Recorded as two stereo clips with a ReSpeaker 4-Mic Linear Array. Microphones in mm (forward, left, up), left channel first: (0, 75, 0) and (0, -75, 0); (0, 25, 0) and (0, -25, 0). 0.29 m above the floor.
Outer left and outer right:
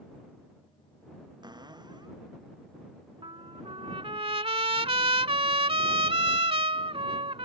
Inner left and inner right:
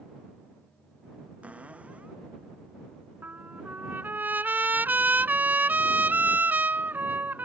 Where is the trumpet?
40° right (ahead or behind).